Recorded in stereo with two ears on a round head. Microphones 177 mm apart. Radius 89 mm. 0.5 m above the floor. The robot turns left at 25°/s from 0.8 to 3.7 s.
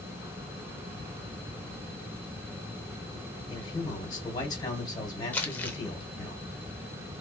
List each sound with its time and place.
3.5 s a man speaking: 25° left (ahead or behind), 2 m; by 6.3 s 20° left (ahead or behind), 2 m
5.3 s crumpling: 10° left (ahead or behind), 0.7 m